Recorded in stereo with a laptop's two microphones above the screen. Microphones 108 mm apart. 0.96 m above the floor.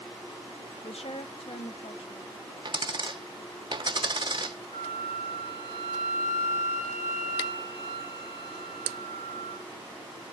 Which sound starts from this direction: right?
A dropped coin, at 2.6 s.